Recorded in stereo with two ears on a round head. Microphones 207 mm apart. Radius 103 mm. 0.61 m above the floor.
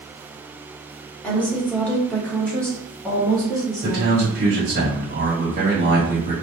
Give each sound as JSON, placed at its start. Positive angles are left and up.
{"t": 1.2, "sound": "a woman speaking", "side_deg": 5, "distance_m": 1.0}
{"t": 3.8, "sound": "a man speaking", "side_deg": -40, "distance_m": 1.5}